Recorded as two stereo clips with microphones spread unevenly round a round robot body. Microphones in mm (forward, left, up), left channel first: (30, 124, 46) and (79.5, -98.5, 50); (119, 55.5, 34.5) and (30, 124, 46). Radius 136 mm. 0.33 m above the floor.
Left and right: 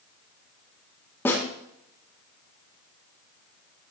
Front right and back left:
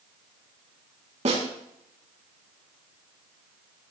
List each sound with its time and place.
1.2 s a snare drum: 175° right, 3.5 m